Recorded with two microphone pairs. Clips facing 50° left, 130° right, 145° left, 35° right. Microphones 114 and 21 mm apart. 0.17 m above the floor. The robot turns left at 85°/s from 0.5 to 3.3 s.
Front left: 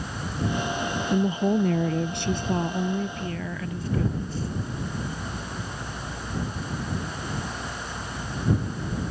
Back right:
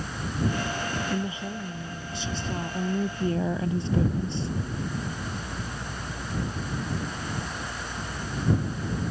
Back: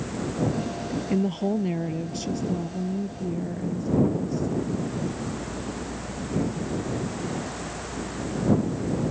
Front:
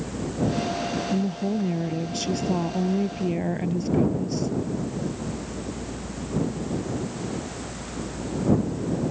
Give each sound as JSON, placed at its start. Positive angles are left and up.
{"t": 1.1, "sound": "a woman speaking", "azimuth_deg": 120}